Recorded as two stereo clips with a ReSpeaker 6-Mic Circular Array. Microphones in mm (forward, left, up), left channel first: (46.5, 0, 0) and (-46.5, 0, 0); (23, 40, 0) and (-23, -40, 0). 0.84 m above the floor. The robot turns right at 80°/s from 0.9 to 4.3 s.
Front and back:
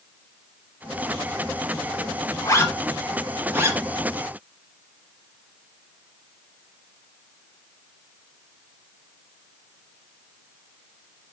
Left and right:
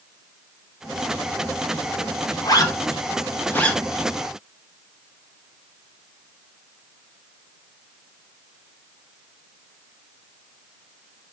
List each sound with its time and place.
2.4 s a zipper: 30° left, 0.9 m; by 3.8 s 140° left, 0.9 m